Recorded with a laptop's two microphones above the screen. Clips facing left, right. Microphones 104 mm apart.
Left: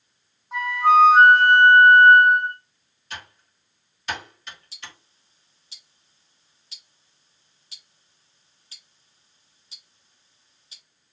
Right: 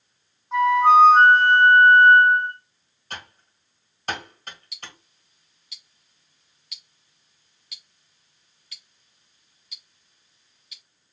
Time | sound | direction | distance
0.5 | a flute | 5° left (ahead or behind) | 1.3 m
3.1 | typing on a keyboard | 45° right (ahead or behind) | 1.1 m
4.7 | ticking | 30° left (ahead or behind) | 0.6 m